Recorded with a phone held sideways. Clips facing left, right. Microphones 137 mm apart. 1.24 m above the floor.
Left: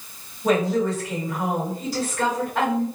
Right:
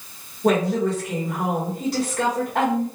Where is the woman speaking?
65° right (ahead or behind), 1.4 m.